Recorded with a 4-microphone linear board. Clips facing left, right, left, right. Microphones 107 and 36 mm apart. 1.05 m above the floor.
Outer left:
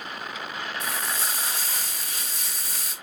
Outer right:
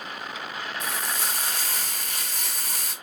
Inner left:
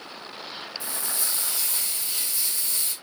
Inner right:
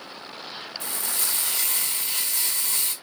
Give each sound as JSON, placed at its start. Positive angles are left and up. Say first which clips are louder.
{"t": 0.8, "sound": "frying", "louder": "even, inner right 3 dB", "side_deg": -55, "distance_m": 4.5}